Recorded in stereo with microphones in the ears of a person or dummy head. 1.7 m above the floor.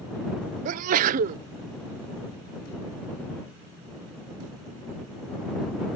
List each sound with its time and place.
0.7 s a sneeze: 50° right (ahead or behind)